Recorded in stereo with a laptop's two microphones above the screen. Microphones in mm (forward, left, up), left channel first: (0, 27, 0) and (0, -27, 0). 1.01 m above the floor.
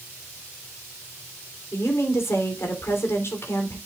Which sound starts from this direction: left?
A woman speaking, at 1.7 s.